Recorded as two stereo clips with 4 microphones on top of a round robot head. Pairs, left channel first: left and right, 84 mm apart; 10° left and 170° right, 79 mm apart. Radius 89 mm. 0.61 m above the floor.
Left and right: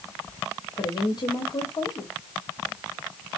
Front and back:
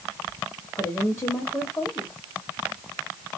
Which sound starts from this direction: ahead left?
A woman speaking, at 0.8 s.